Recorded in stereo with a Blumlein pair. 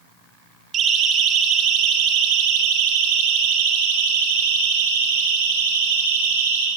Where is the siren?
30° right, 4 m; by 6.7 s 60° right, 7.5 m.